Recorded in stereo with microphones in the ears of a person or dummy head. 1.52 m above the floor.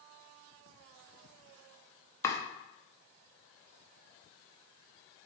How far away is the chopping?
About 0.6 m.